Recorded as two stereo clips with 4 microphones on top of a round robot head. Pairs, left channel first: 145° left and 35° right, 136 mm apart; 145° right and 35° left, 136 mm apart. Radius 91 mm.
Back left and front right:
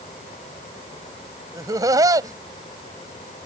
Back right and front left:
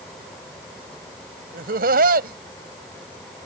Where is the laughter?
30° left.